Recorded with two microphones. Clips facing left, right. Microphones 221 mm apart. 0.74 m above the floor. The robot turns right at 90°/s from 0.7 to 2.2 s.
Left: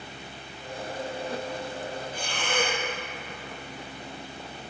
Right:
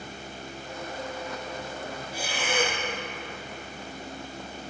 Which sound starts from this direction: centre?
Breathing, at 2.1 s.